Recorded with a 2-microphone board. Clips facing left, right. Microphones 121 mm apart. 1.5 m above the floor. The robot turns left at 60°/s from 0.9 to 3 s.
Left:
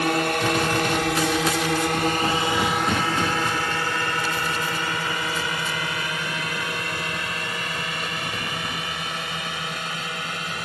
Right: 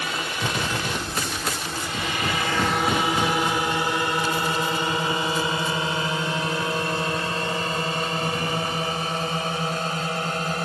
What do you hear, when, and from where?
0.0 s a drone: 50° left (ahead or behind); by 10.7 s 35° right (ahead or behind)